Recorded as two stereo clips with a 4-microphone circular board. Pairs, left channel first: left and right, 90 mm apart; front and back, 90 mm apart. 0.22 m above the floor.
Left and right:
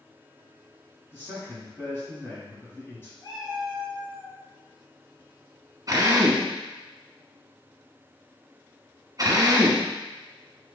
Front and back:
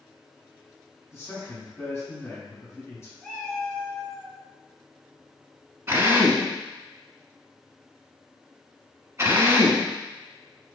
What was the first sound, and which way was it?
A man speaking, 40° left.